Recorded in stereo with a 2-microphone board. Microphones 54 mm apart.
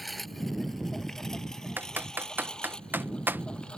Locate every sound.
0.0 s a lawn mower: centre (ahead or behind); by 3.8 s 20° left (ahead or behind)
1.8 s typing on a keyboard: 40° right (ahead or behind)